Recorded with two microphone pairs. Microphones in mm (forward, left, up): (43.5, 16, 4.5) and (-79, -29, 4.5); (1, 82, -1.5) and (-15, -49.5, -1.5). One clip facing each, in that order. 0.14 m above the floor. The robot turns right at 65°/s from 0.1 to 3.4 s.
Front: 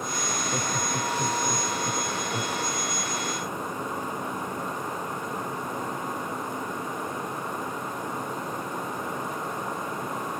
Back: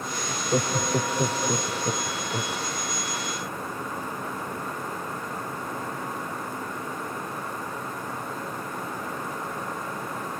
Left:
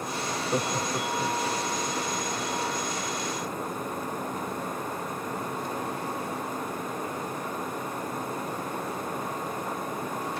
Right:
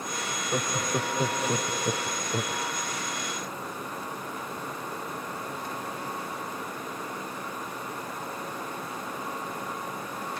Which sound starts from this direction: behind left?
Laughter, at 0.3 s.